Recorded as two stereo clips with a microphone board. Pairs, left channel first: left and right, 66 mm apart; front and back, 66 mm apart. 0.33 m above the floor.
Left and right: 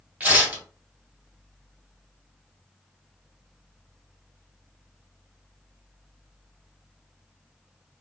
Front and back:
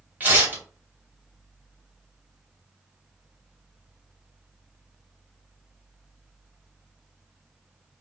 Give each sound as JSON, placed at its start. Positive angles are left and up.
{"t": 0.2, "sound": "tearing paper", "azimuth_deg": -135, "distance_m": 1.8}